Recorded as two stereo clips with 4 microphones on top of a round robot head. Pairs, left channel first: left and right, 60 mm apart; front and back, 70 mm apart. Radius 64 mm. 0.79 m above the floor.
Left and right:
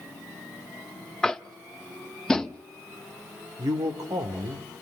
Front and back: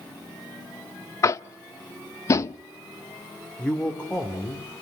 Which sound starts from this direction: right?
A man speaking, at 3.6 s.